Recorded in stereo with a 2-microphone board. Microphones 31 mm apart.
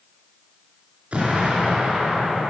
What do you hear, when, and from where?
1.1 s an explosion: 45° right (ahead or behind), 3.5 m